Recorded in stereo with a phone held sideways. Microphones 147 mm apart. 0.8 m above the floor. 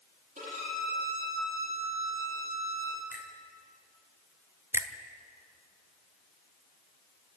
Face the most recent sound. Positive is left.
turn(degrees=-15)  # may be behind; listen again after turning